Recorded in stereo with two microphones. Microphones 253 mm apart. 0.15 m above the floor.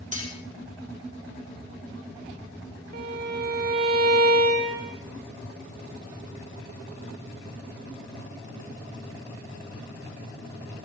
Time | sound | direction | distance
0.1 | cutlery clinking | 30° right (ahead or behind) | 4 m
2.9 | a violin | 80° right | 6 m